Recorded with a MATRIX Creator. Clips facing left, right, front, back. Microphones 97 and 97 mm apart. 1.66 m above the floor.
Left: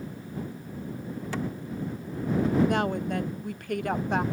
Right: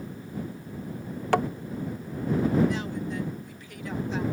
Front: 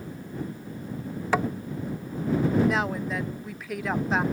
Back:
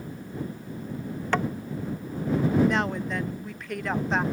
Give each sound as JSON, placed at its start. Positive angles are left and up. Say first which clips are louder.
{"t": 1.3, "sound": "tapping", "louder": "right 9 dB, front 1 dB", "azimuth_deg": -80}
{"t": 2.7, "sound": "a woman speaking", "louder": "left 4 dB, even", "azimuth_deg": 85}